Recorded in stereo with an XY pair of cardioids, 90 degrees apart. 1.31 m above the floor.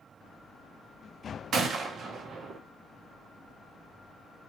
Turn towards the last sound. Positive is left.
turn(degrees=-65)